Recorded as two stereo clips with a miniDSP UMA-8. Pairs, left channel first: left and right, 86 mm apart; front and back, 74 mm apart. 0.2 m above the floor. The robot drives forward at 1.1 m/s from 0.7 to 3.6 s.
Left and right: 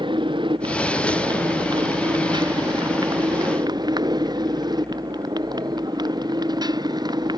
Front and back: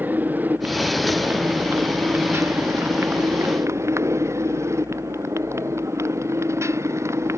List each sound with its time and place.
0.0 s a motorcycle: 115° right; by 7.4 s 130° right